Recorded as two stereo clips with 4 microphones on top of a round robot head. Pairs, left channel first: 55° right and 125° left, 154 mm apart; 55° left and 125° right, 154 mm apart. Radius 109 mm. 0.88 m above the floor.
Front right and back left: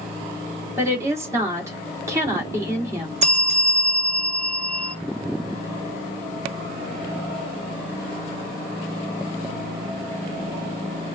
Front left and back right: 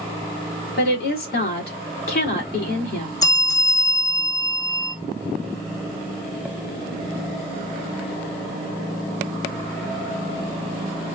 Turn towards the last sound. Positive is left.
turn(degrees=105)